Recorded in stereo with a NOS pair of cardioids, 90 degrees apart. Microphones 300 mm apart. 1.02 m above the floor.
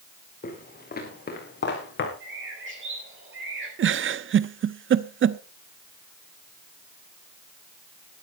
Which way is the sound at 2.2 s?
40° right.